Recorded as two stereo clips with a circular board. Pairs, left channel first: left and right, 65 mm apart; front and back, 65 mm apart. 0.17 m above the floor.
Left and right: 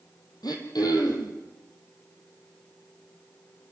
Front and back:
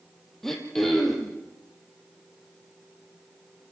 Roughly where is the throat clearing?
Left.